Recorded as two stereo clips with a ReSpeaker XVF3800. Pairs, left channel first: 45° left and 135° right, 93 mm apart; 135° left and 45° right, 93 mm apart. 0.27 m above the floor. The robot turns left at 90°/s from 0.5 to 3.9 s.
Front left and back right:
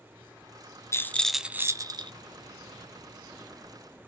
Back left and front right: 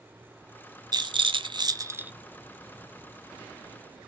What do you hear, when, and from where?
0.9 s a rattle: 10° right, 0.6 m; by 2.1 s 115° right, 0.6 m